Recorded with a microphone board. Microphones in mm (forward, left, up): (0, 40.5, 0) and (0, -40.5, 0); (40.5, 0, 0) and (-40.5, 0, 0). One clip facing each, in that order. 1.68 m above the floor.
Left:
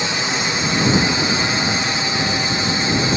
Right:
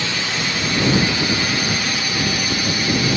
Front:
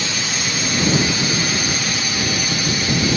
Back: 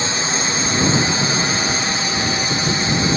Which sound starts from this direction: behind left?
A drone, at 0.0 s.